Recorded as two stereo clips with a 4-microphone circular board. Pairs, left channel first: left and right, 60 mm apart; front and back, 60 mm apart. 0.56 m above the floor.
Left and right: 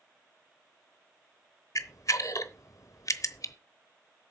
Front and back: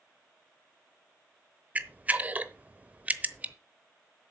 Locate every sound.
1.8 s a camera shutter: 115° left, 0.8 m